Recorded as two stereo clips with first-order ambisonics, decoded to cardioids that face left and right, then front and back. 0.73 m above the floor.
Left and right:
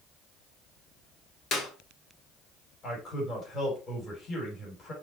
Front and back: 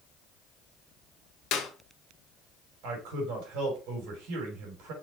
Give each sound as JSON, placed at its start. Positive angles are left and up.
{"t": 1.5, "sound": "a clap", "azimuth_deg": 35, "distance_m": 1.5}
{"t": 2.8, "sound": "a man speaking", "azimuth_deg": 155, "distance_m": 4.0}